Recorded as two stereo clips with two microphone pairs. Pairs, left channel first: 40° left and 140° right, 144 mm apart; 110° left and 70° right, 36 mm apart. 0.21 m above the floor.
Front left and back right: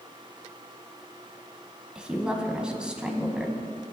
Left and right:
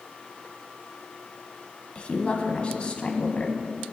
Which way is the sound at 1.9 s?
140° left.